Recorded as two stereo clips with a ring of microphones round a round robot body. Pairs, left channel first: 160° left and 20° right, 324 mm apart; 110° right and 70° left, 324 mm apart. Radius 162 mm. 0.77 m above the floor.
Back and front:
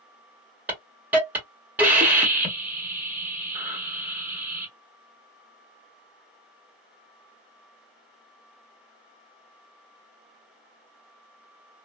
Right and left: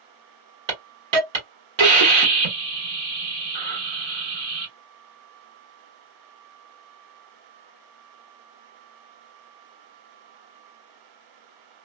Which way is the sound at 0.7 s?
65° left.